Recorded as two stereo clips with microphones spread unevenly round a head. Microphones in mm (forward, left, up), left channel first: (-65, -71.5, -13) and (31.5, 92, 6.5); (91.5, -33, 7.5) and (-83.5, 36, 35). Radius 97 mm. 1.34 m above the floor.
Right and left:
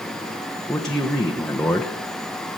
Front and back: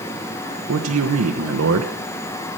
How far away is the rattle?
No rattle in this recording.